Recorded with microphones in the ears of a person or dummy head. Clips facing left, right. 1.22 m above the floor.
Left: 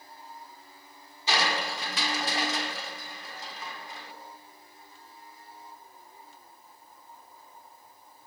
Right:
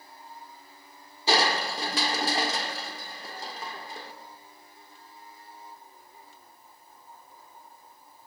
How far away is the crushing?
About 2.5 m.